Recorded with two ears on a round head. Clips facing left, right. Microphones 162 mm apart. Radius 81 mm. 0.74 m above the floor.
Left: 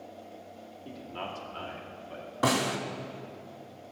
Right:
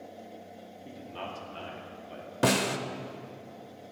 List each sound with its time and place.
0.8 s a man speaking: 5° right (ahead or behind), 1.7 m; by 2.3 s 20° right (ahead or behind), 2 m
2.4 s a snare drum: 30° right (ahead or behind), 0.6 m